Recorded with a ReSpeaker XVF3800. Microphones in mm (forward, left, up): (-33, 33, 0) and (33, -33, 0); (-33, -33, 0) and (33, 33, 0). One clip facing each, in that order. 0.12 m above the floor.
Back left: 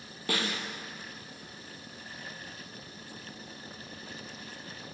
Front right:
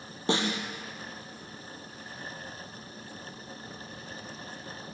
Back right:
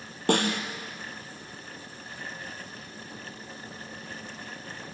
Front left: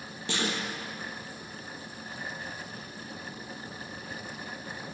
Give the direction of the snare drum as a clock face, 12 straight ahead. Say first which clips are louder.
Front right 5 dB, back right 7 dB; 4 o'clock.